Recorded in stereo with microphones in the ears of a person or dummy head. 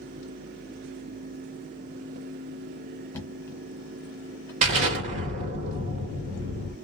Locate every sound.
3.1 s knocking: 15° left (ahead or behind), 1.2 m
4.6 s an explosion: 45° right (ahead or behind), 1.1 m